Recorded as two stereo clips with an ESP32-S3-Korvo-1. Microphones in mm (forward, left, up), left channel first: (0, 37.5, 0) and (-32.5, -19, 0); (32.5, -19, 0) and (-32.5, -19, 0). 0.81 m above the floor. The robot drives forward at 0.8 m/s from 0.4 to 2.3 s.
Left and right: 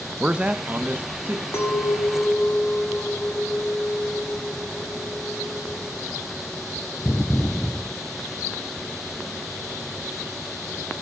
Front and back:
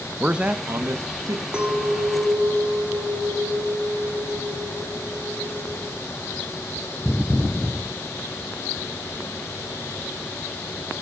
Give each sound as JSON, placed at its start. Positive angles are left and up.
{"t": 0.2, "sound": "a man speaking", "azimuth_deg": -145, "distance_m": 0.5}
{"t": 1.5, "sound": "a clink", "azimuth_deg": 105, "distance_m": 1.6}